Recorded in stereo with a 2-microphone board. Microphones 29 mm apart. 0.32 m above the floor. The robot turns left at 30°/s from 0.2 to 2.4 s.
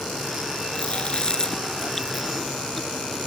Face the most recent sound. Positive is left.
turn(degrees=0)  # may be behind; listen again after turning